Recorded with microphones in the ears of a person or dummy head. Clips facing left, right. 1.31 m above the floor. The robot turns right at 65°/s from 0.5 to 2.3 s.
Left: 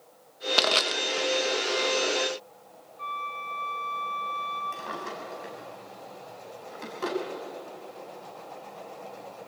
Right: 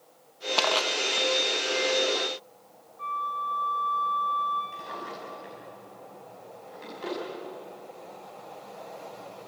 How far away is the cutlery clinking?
I don't hear cutlery clinking.